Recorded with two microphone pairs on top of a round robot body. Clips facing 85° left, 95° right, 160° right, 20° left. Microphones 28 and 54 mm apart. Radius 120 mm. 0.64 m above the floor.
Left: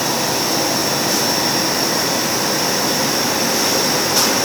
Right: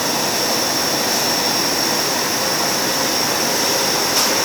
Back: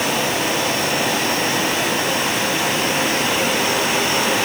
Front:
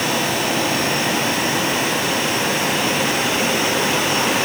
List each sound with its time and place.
Only background noise.